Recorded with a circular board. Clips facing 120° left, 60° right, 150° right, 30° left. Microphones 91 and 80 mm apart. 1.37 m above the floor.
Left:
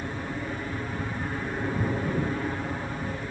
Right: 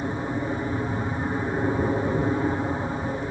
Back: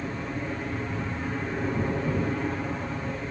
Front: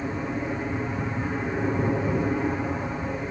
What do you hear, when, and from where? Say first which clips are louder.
0.0 s an aircraft: right 6 dB, front 3 dB; 30° right